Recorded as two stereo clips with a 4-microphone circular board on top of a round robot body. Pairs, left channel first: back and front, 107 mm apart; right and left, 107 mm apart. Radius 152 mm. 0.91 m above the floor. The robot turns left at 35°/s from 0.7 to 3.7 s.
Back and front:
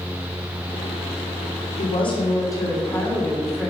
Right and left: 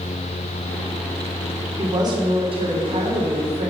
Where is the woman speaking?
150° left, 2.5 m; by 3.7 s 80° left, 2.5 m.